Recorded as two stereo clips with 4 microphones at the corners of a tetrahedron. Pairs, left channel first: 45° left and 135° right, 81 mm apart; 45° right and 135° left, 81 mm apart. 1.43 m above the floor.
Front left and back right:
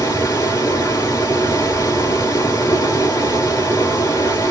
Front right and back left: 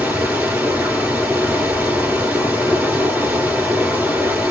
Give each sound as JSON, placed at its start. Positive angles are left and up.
{"t": 0.0, "sound": "running water", "azimuth_deg": 70, "distance_m": 2.5}